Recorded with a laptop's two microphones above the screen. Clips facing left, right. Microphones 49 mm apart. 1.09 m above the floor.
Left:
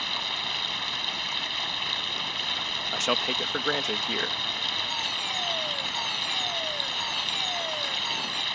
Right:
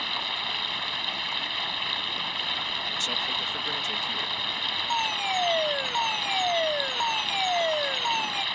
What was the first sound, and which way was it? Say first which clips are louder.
Running water: right 1 dB; 5° right (ahead or behind).